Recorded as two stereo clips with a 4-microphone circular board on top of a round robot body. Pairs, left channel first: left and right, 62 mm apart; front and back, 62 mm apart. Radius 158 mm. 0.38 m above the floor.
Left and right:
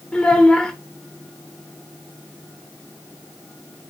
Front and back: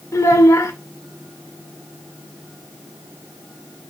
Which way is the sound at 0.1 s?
20° left.